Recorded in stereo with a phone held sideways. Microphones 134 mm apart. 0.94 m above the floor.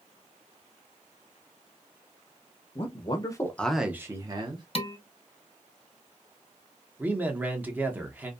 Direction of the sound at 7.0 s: 15° right (ahead or behind).